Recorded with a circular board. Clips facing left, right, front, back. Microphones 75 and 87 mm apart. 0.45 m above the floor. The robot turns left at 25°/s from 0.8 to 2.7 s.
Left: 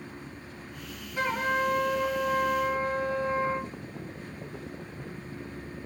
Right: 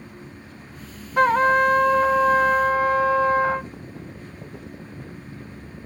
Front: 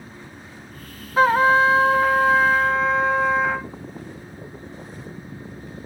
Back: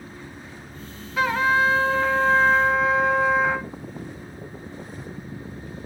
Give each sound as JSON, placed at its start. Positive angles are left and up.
{"t": 1.2, "sound": "a trumpet", "azimuth_deg": -55, "distance_m": 0.6}